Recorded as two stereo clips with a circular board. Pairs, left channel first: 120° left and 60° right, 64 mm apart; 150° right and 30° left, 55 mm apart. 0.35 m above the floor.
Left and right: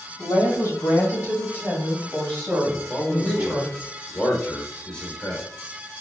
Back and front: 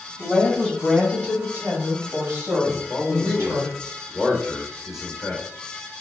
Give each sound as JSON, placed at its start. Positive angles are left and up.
{"t": 0.2, "sound": "a woman speaking", "azimuth_deg": 115, "distance_m": 2.0}
{"t": 2.6, "sound": "a man speaking", "azimuth_deg": 120, "distance_m": 0.9}